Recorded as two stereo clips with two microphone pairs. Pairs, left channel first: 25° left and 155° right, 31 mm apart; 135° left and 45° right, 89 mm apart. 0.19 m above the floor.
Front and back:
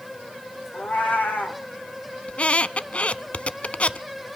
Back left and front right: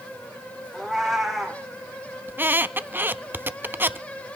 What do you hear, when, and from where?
0.7 s a cat meowing: 45° left, 2 m
2.3 s a squeak: 10° left, 0.5 m